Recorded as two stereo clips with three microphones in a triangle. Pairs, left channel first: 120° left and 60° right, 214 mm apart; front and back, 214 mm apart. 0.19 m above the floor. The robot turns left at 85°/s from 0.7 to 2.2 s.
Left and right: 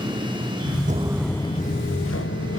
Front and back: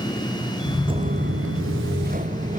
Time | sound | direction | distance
0.9 | footsteps | 115° right | 0.6 m